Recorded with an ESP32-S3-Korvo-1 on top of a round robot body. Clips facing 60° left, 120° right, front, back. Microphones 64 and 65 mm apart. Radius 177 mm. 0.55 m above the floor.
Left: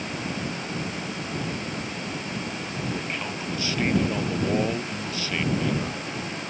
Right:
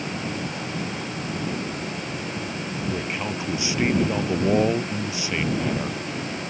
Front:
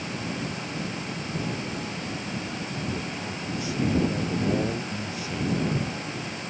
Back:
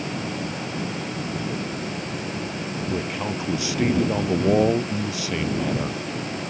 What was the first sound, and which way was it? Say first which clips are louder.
A man speaking: right 3 dB, back 6 dB; 165° left.